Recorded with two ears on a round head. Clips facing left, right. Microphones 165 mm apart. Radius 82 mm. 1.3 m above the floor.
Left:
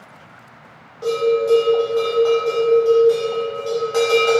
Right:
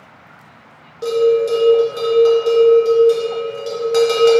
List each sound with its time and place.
1.0 s a bell: 25° right (ahead or behind), 0.6 m